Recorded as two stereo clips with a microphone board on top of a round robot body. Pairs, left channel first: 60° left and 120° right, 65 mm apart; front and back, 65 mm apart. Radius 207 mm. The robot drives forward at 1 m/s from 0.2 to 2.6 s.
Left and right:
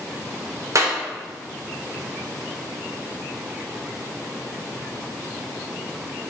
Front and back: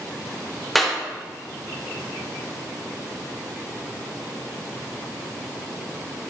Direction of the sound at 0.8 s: 90° right.